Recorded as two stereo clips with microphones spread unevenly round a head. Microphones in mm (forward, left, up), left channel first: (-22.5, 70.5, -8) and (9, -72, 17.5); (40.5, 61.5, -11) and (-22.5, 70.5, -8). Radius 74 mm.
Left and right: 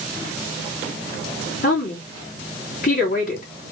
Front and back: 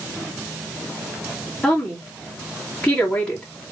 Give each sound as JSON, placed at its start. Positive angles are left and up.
{"t": 1.6, "sound": "a woman speaking", "azimuth_deg": 70, "distance_m": 2.5}